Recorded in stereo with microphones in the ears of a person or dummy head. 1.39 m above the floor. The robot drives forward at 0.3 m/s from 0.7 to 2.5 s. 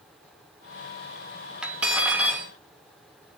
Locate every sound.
1.6 s cutlery clinking: 10° right (ahead or behind), 1.2 m